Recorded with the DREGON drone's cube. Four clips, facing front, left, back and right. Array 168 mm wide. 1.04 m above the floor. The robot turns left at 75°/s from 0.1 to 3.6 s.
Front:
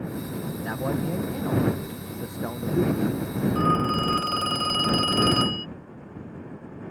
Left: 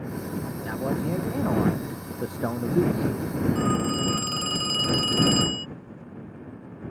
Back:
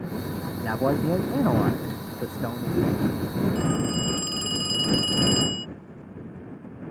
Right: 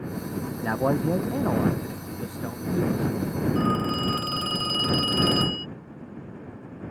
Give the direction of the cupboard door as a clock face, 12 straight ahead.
No cupboard door in this recording.